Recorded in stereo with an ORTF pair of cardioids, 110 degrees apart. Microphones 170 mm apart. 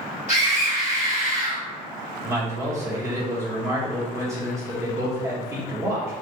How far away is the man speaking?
About 1.4 m.